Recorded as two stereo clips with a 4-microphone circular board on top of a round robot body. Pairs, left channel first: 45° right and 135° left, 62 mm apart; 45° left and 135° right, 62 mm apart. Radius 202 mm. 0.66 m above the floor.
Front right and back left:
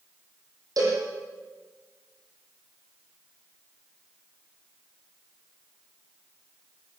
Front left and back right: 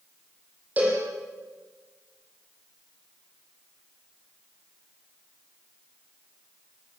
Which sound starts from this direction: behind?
A cowbell, at 0.8 s.